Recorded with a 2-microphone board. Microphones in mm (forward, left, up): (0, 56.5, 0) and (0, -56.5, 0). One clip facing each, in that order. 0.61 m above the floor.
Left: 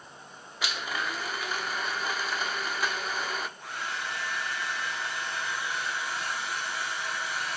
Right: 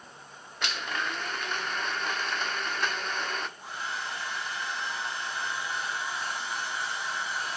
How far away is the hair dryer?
About 3.5 m.